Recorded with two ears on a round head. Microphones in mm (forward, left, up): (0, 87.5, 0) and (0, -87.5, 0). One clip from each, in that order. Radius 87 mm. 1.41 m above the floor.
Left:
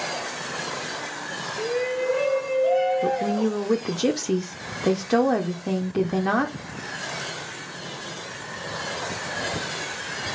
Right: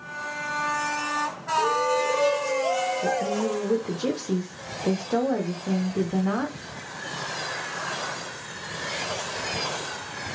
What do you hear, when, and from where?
1.6 s a shout: 20° left (ahead or behind), 0.9 m; by 3.6 s 50° right (ahead or behind), 1.8 m
3.0 s a woman speaking: 75° left (ahead or behind), 0.8 m